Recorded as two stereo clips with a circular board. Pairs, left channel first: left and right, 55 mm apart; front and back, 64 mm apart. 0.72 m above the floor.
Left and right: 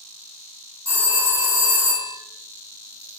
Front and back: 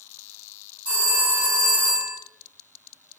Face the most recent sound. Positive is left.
turn(degrees=-110)